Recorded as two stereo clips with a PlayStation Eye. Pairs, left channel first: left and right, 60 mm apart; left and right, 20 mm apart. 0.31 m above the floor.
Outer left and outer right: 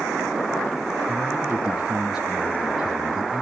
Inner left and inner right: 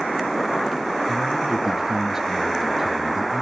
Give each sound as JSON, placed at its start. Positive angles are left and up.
{"t": 1.1, "sound": "a man speaking", "side_deg": -10, "distance_m": 5.0}